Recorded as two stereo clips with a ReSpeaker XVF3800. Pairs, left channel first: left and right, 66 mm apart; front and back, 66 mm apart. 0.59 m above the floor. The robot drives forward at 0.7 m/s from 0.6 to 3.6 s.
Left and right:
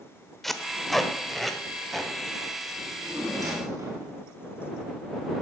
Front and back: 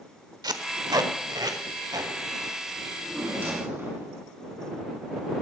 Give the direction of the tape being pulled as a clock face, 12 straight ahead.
6 o'clock.